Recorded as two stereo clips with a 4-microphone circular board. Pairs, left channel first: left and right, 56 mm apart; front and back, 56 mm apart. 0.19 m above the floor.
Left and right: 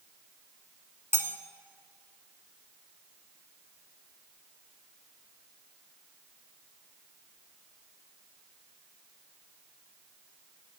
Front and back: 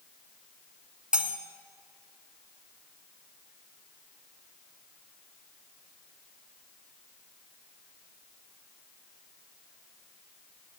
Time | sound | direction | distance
1.1 | cutlery clinking | 110° right | 0.9 m